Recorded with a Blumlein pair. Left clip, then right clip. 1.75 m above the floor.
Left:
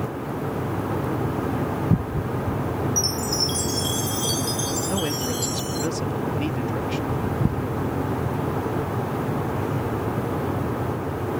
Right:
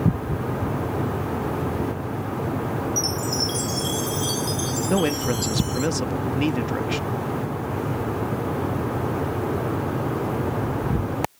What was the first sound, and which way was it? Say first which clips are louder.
A chime: left 1 dB; 5° left.